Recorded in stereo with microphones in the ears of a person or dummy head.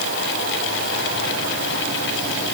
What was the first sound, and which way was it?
Only background noise.